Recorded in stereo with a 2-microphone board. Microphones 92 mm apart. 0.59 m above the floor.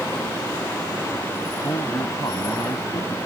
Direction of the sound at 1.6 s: 45° left (ahead or behind).